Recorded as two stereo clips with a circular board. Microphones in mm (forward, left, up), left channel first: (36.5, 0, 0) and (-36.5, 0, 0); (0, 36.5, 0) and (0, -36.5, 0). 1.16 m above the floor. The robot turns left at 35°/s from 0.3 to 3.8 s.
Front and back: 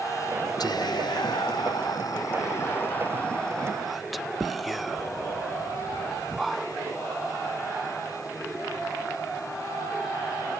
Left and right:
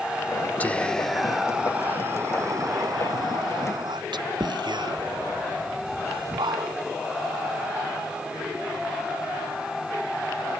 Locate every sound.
0.6 s whispering: 20° left; by 6.8 s 90° right